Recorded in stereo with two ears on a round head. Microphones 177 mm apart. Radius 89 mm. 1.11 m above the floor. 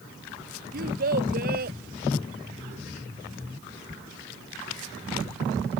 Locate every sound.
0.7 s a child speaking: 50° right (ahead or behind)